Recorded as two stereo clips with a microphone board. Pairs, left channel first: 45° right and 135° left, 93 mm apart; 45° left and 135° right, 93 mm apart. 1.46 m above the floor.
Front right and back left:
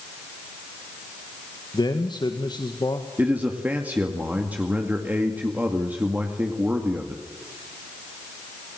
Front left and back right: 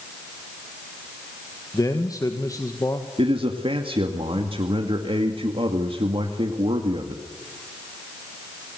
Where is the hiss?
No hiss in this recording.